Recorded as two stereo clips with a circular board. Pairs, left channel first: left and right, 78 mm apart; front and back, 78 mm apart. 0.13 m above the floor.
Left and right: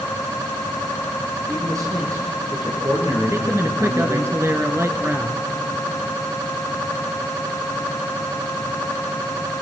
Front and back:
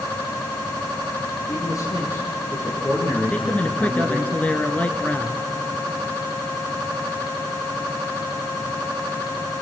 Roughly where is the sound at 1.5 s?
Ahead right.